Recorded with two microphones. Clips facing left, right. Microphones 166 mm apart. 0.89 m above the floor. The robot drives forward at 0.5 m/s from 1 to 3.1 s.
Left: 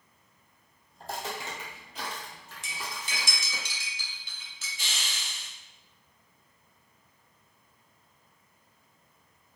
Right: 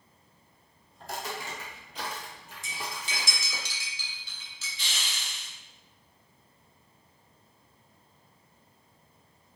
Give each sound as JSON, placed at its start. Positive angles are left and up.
{"t": 1.0, "sound": "footsteps", "side_deg": 35, "distance_m": 1.1}
{"t": 2.6, "sound": "cutlery clinking", "side_deg": 70, "distance_m": 0.6}
{"t": 4.8, "sound": "a hiss", "side_deg": 45, "distance_m": 0.7}